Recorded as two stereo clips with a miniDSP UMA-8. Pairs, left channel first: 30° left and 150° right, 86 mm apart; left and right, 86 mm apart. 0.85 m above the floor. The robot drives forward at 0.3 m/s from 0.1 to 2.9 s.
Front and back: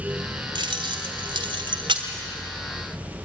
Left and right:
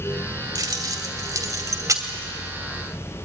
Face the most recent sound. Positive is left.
turn(degrees=-140)